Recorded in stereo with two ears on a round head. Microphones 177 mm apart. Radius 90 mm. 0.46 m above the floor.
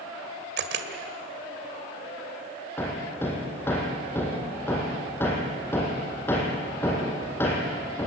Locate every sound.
0.6 s a camera shutter: 60° right (ahead or behind), 1.9 m
2.8 s hammering: 10° left (ahead or behind), 4 m